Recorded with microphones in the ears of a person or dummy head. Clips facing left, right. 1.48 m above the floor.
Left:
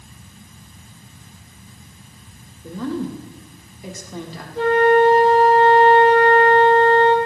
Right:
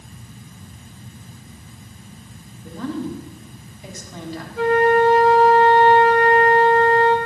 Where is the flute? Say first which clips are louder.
Left 2 dB; 35° left (ahead or behind), 3 m.